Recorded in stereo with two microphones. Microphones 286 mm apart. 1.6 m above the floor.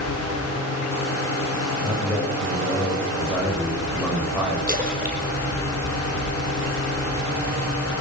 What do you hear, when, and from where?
1.8 s a man speaking: 5° right (ahead or behind), 9.5 m; by 4.6 s centre (ahead or behind), 10 m
4.7 s a splash: 30° right (ahead or behind), 5.5 m